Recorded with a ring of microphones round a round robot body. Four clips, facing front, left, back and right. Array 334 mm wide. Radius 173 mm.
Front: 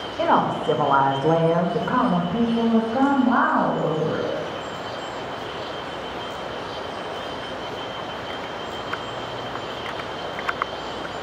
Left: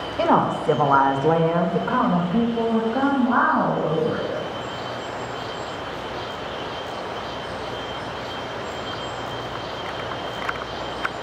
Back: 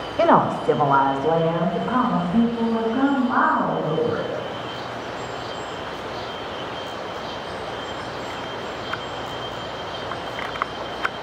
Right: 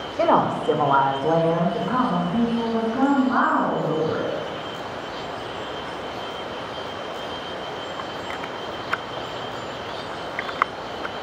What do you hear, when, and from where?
0.2 s a woman speaking: 170° right, 1.1 m; by 4.3 s 35° left, 3 m